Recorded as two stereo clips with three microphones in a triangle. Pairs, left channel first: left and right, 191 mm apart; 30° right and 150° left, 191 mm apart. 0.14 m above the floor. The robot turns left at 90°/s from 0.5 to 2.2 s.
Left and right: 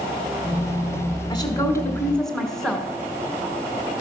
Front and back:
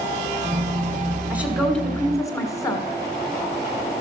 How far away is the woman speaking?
About 1.4 m.